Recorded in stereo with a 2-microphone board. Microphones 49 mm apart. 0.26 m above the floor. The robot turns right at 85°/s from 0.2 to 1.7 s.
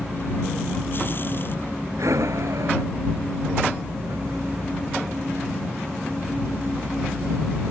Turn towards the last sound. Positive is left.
turn(degrees=-85)